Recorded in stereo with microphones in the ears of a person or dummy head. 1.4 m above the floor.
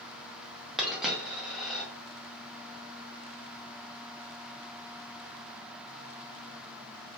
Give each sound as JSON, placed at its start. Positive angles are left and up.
{"t": 0.8, "sound": "a dropped coin", "side_deg": 0, "distance_m": 0.8}